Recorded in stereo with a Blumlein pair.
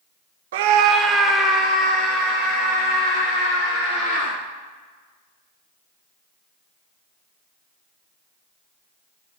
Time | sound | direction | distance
0.5 | a scream | 55° right | 0.6 m